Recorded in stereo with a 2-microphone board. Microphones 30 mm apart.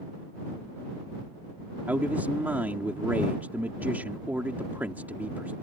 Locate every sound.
1.9 s a man speaking: 80° right